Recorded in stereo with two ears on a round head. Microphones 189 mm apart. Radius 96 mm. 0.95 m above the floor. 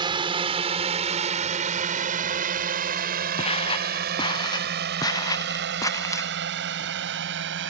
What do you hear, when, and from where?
0.0 s a drone: 25° right (ahead or behind); by 7.7 s 65° right (ahead or behind)
3.4 s footsteps: 30° left (ahead or behind); by 6.3 s 15° left (ahead or behind)